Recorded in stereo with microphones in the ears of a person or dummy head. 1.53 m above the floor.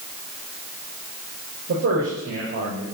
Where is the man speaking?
50° right (ahead or behind), 5.5 m.